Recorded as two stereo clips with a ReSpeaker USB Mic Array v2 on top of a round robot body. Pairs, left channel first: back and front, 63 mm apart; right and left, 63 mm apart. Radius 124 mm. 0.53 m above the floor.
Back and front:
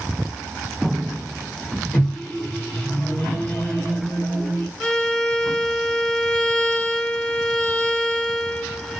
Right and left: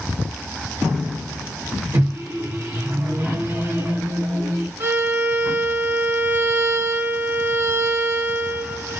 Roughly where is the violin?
Left.